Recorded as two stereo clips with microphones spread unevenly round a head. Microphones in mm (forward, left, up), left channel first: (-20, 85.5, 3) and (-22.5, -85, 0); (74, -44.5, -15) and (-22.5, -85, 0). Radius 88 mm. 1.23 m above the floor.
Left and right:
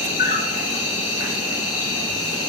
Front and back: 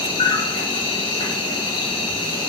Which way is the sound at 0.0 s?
55° left.